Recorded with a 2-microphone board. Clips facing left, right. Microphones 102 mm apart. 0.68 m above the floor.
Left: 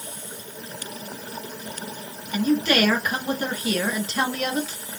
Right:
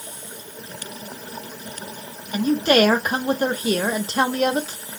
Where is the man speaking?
40° right (ahead or behind), 0.8 m.